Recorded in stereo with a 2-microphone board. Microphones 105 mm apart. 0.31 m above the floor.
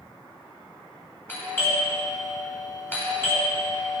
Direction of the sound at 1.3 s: 20° left (ahead or behind).